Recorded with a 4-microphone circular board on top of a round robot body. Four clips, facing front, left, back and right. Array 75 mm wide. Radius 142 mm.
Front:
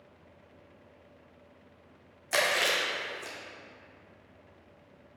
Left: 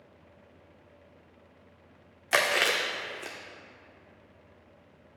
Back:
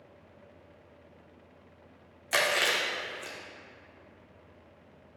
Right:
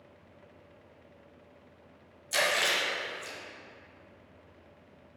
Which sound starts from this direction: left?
Chewing, at 2.3 s.